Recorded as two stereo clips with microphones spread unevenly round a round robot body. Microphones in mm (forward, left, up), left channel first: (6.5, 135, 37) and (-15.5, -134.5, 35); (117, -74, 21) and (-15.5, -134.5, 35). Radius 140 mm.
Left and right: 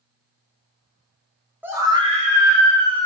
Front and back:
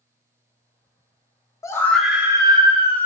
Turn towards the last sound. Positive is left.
turn(degrees=-130)